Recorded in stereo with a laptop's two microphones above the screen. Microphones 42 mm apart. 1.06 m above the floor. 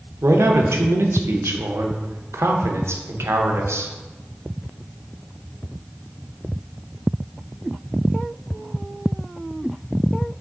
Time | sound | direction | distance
0.2 | a man speaking | 80° right | 0.5 m